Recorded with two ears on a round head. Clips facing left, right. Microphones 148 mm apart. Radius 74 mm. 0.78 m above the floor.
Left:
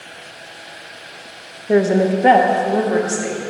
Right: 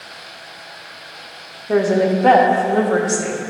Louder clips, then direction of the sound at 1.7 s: Left 1 dB; 25° left (ahead or behind).